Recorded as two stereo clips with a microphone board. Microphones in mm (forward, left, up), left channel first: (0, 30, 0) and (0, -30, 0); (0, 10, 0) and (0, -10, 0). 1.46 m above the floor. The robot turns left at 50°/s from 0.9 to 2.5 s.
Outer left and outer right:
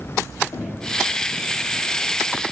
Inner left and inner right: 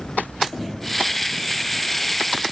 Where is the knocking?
80° left, 3.5 m.